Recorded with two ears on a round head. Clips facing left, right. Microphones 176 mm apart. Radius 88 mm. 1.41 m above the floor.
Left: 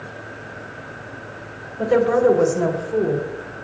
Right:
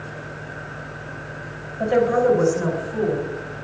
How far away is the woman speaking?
About 2 m.